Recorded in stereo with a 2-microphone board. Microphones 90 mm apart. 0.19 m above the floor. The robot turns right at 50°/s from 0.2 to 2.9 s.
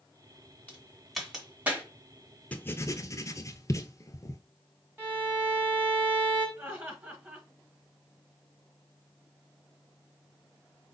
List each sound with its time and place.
0.7 s a crack: 15° left (ahead or behind), 1.9 m; by 1.8 s 20° right (ahead or behind), 1.9 m
2.5 s writing: 15° left (ahead or behind), 0.6 m; by 4.4 s 35° left (ahead or behind), 0.6 m
5.0 s a violin: 20° right (ahead or behind), 2 m
6.6 s laughter: 20° right (ahead or behind), 2.0 m